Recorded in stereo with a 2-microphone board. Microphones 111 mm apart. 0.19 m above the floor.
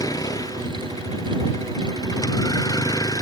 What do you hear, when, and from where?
0.0 s a vehicle: 30° left (ahead or behind)